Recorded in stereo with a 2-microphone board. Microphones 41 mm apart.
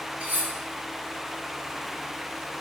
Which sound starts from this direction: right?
Cutlery clinking, at 0.2 s.